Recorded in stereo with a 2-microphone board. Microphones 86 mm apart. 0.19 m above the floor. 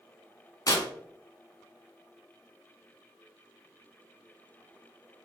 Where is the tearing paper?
45° left (ahead or behind), 0.8 m.